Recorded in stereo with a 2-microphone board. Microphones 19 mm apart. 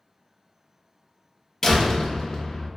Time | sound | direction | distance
1.6 | a door slam | 25° left (ahead or behind) | 0.5 m